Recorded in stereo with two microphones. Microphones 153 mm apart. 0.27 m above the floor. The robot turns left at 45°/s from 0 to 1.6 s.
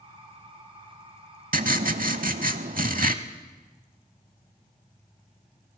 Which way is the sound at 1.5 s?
65° right (ahead or behind).